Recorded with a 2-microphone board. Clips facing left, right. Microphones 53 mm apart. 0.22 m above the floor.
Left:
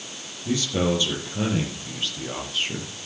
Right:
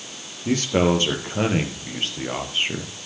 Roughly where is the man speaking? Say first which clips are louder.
Right 4 dB; right.